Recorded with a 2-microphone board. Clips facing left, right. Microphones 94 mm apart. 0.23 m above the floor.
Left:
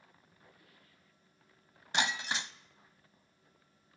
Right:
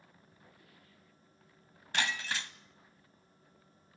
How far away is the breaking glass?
About 0.8 m.